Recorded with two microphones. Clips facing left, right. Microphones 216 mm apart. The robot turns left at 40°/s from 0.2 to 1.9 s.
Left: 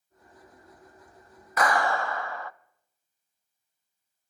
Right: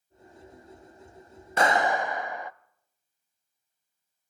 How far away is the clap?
About 0.6 m.